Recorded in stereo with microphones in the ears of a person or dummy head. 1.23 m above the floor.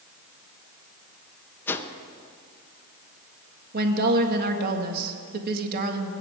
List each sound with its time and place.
1.7 s a whoosh: 15° left (ahead or behind), 0.8 m
3.7 s a woman speaking: 45° right (ahead or behind), 1.7 m